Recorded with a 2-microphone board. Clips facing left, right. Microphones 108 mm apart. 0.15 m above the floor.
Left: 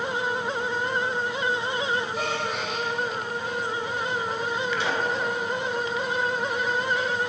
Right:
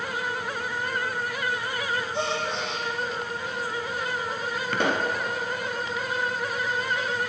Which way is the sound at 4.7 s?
55° right (ahead or behind).